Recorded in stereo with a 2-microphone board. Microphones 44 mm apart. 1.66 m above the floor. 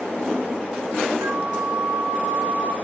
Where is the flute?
70° right (ahead or behind), 2 m.